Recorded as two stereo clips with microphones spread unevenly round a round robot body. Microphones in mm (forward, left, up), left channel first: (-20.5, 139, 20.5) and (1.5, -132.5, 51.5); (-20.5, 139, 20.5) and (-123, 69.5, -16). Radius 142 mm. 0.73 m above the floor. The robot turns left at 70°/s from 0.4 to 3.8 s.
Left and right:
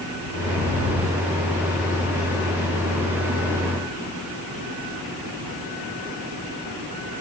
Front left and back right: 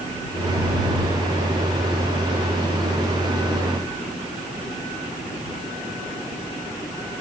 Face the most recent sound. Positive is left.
No sound to turn to.